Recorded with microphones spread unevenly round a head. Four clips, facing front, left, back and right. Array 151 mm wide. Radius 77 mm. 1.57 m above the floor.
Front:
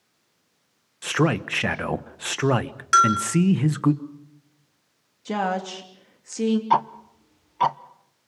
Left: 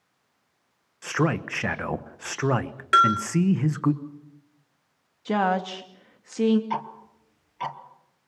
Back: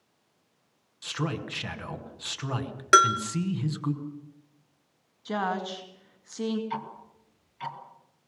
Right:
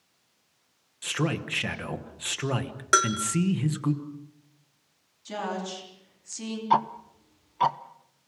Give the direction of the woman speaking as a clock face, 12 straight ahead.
10 o'clock.